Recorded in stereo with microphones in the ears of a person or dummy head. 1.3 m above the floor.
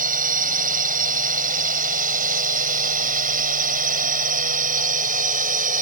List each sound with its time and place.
0.0 s a drone: 45° right (ahead or behind)